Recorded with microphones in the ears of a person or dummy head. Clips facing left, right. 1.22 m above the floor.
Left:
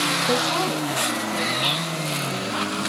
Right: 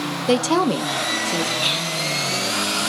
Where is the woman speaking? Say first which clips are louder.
Right 7 dB; 70° right (ahead or behind), 1.1 m; by 1.5 s 50° right (ahead or behind), 1.7 m.